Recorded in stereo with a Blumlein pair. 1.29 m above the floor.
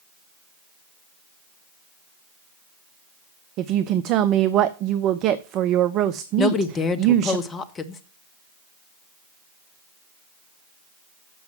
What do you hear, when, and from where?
3.6 s a woman speaking: 35° right, 0.6 m
6.4 s a woman speaking: 20° left, 1.1 m